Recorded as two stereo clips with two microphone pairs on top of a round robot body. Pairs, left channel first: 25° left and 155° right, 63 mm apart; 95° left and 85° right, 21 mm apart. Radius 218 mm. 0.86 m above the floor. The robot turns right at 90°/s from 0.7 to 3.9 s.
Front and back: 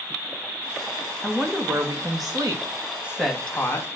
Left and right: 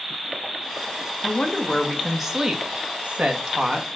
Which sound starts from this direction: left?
A woman speaking, at 1.2 s.